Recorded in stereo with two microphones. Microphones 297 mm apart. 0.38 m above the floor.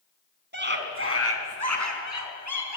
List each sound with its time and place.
0.5 s a scream: 35° right (ahead or behind), 3.5 m; by 2.8 s 75° right (ahead or behind), 4.5 m